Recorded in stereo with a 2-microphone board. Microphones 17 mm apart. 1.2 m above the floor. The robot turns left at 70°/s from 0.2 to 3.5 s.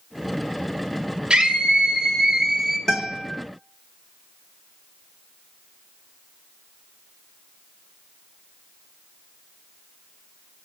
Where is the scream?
65° right, 2.5 m; by 2.8 s 170° right, 2.5 m.